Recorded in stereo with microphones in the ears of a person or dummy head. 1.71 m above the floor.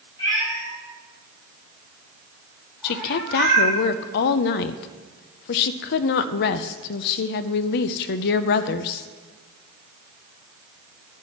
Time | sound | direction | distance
0.2 | a cat meowing | 25° left (ahead or behind) | 5 m
2.8 | a woman speaking | 60° left (ahead or behind) | 0.5 m